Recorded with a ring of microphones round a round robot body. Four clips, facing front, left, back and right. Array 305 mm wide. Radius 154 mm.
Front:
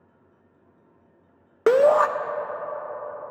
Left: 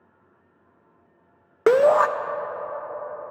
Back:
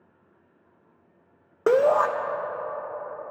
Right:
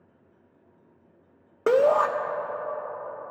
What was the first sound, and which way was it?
A shout, 60° left.